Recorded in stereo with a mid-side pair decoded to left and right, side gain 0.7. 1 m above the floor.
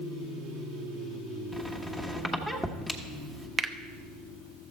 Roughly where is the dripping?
I don't hear dripping.